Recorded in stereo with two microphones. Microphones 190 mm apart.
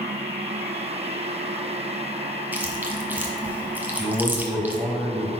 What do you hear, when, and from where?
2.5 s chewing: 10° right (ahead or behind), 1.3 m
4.0 s a man speaking: centre (ahead or behind), 1.2 m